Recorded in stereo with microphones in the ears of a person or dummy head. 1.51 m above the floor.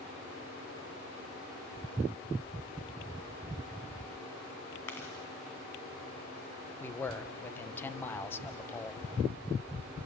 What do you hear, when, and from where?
4.9 s chewing: 25° left (ahead or behind), 2.5 m
6.8 s a man speaking: 20° left (ahead or behind), 1.0 m